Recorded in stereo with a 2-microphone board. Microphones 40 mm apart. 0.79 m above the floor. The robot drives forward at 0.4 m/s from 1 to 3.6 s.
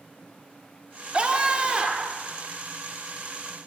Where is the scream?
25° right (ahead or behind), 2 m; by 2.2 s 20° right (ahead or behind), 2.5 m.